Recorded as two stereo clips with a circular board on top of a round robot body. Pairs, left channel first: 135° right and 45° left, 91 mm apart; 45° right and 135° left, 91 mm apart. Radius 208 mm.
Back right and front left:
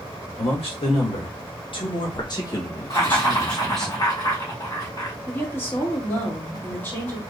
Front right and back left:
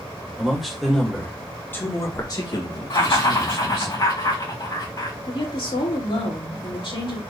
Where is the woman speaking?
70° right, 2 m.